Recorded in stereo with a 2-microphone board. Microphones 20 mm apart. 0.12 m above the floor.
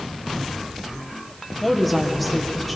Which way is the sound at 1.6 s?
10° left (ahead or behind).